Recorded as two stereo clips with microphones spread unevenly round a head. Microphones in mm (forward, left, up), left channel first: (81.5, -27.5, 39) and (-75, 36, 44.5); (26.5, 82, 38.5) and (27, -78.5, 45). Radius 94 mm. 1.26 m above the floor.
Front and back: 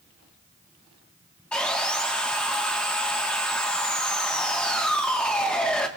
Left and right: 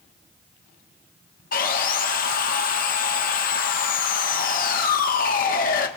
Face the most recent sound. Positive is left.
turn(degrees=65)